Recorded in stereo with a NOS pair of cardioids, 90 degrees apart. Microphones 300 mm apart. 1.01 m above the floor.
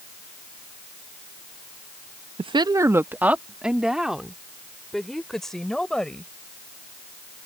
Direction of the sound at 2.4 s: 20° right.